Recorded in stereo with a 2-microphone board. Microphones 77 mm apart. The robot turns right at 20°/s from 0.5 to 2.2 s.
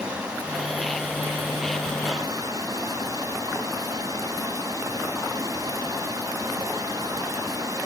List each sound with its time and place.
0.0 s running water: 165° right, 5 m; by 7.9 s 130° right, 5 m